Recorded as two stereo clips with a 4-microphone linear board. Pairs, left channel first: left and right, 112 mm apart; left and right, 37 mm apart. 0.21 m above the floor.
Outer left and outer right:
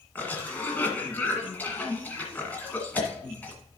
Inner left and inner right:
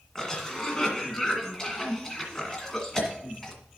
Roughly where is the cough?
Centre.